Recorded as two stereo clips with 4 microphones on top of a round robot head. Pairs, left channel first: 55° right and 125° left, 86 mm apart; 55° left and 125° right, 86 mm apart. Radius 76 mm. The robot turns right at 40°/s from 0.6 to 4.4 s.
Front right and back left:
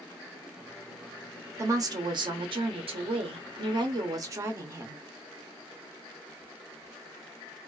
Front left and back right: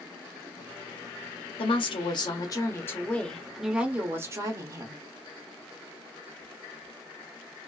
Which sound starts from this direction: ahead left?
A woman speaking, at 1.6 s.